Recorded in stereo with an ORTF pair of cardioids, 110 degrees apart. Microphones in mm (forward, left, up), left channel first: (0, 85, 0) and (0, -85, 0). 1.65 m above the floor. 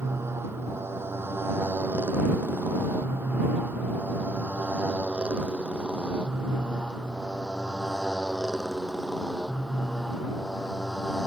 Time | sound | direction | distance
0.0 | a motorcycle | 15° right | ?